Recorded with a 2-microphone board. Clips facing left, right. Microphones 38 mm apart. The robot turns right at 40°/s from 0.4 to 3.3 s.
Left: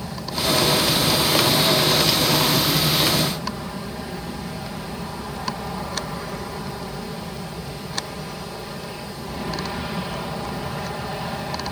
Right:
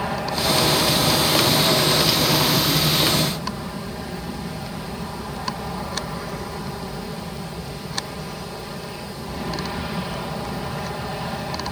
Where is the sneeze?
No sneeze in this recording.